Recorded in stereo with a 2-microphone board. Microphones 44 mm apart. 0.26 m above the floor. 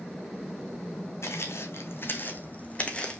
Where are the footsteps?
75° left (ahead or behind), 1.2 m; by 3.2 s 20° left (ahead or behind), 1.1 m.